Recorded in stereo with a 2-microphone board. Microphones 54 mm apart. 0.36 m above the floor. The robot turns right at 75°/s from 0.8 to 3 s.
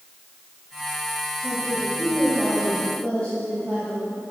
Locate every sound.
1.4 s a woman speaking: 95° right, 2 m; by 4.3 s 25° left, 2 m